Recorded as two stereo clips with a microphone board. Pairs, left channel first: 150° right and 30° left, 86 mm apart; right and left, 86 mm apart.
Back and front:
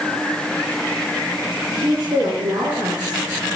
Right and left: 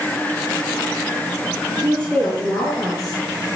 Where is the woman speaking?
20° right, 6 m; by 3.2 s 10° right, 5.5 m.